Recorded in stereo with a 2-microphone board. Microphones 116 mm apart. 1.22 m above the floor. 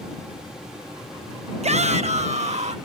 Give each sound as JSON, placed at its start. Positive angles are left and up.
{"t": 1.6, "sound": "a shout", "side_deg": -70}